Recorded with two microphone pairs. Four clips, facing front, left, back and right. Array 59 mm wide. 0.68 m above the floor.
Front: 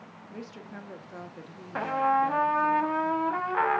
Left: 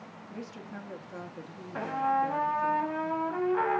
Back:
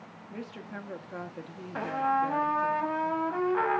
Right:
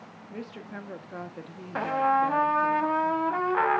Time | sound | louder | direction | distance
0.3 | a woman speaking | right 3 dB, back 2 dB | 135° right | 0.5 m
1.8 | a trumpet | right 4 dB, front 3 dB | 40° right | 0.6 m